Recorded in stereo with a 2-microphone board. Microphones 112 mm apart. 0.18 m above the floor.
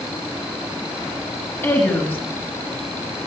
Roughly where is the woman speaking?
Left.